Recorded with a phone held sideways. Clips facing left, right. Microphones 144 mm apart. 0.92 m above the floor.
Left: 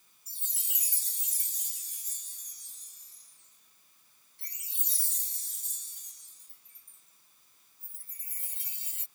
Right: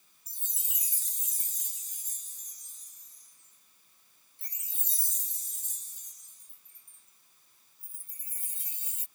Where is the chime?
70° left (ahead or behind).